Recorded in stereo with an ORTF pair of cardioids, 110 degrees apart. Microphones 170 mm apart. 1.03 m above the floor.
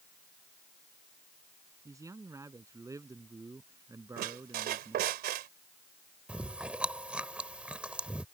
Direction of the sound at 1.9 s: 20° right.